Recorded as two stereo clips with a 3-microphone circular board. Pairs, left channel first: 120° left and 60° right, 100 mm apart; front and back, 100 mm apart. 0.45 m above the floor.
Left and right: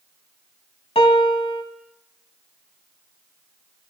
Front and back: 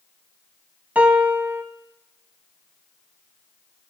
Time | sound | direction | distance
0.9 | a piano | 110° left | 0.9 m